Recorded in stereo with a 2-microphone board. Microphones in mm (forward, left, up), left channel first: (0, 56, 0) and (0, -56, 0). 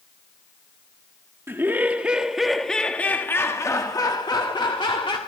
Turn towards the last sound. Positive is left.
turn(degrees=50)  # may be behind; listen again after turning